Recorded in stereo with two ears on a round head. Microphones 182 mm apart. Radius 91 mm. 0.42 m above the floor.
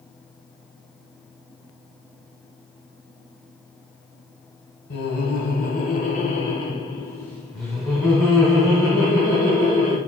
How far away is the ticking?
I don't hear ticking.